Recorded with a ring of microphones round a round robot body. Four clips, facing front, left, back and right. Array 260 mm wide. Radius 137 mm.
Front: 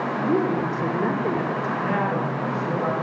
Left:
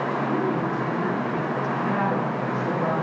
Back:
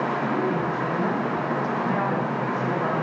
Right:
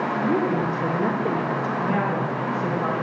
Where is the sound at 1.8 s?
15° right, 9.5 m.